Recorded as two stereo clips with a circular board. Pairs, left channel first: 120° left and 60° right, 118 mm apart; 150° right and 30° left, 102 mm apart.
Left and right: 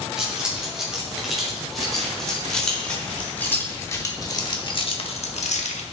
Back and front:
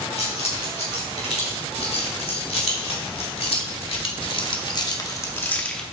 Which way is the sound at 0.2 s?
145° right.